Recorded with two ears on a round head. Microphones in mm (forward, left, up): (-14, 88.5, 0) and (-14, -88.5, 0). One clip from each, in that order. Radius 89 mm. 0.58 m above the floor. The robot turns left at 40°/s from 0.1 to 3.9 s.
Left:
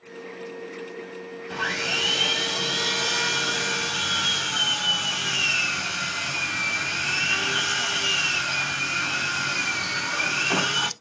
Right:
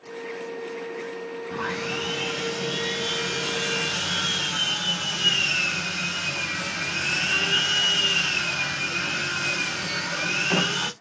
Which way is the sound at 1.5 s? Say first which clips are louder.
Left 4 dB; 100° left.